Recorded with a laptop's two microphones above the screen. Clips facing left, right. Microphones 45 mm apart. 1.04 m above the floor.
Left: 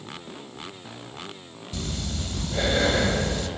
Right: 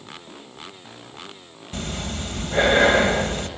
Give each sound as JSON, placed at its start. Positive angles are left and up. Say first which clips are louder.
{"t": 1.7, "sound": "breathing", "louder": "right 3 dB", "side_deg": -40, "distance_m": 1.9}